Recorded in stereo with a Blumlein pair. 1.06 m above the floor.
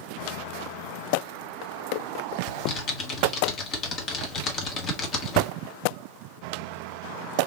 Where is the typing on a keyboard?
30° left, 1.4 m.